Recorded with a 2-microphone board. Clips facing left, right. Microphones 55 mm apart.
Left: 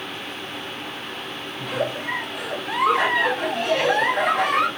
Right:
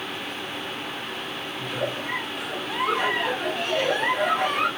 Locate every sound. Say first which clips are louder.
1.6 s a giggle: left 4 dB; 70° left (ahead or behind), 0.7 m